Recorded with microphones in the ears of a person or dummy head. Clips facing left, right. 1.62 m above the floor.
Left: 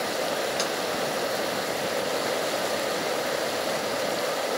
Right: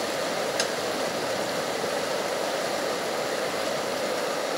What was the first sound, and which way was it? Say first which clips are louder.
Tapping: even; 15° right (ahead or behind).